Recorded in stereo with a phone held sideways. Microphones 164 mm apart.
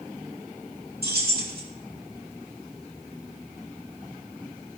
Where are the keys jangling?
80° right, 2 m.